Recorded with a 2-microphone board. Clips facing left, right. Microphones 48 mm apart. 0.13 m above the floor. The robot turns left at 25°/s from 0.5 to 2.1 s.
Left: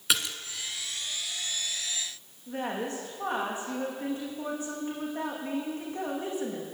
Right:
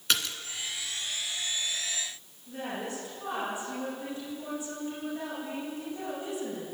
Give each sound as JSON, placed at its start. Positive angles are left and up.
{"t": 0.1, "sound": "a splash", "side_deg": 10, "distance_m": 1.5}
{"t": 2.5, "sound": "a woman speaking", "side_deg": 45, "distance_m": 9.0}